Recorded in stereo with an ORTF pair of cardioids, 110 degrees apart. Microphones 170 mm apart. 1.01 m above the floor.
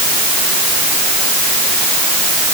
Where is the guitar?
No guitar in this recording.